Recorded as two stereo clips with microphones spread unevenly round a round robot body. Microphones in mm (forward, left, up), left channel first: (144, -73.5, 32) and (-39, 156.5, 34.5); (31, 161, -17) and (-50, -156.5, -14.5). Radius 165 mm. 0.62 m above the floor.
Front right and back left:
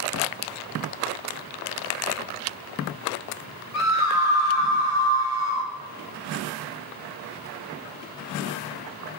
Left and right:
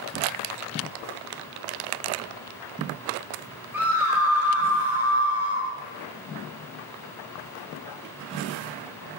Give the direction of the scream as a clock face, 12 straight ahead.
1 o'clock.